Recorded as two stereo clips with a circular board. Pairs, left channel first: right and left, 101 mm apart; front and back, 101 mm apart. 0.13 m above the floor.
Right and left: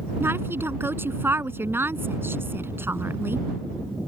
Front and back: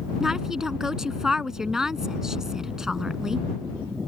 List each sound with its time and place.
0.2 s a woman speaking: 105° left